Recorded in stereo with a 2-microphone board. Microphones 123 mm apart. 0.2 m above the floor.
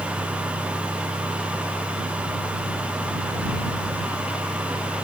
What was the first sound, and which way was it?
Only background noise.